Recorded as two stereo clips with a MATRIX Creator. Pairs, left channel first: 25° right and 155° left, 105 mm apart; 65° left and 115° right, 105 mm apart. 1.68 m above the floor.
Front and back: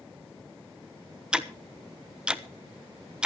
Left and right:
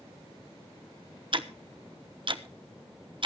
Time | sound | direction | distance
1.3 | ticking | 125° right | 0.8 m